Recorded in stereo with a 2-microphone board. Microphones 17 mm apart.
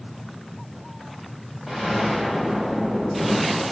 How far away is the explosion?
About 3.5 m.